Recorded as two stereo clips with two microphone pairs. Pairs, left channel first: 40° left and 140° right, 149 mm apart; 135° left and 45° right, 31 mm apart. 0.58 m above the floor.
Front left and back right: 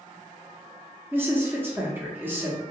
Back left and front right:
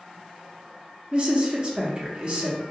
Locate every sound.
1.1 s a woman speaking: 70° right, 0.7 m